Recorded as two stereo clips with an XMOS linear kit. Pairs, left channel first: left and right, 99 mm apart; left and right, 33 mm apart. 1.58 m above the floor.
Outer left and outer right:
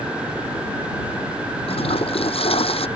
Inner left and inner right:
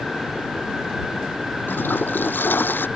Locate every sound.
1.7 s a toilet flushing: 75° left (ahead or behind)